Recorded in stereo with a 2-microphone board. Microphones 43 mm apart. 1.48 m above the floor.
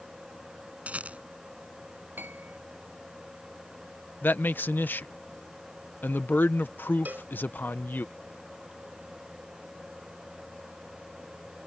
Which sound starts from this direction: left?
A man speaking, at 4.2 s.